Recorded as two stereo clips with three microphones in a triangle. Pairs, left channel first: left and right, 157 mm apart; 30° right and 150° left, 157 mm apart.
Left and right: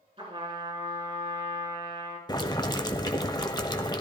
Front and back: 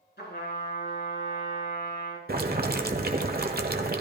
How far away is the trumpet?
About 3.5 m.